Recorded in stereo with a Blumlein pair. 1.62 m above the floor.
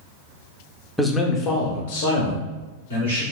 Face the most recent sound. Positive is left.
turn(degrees=75)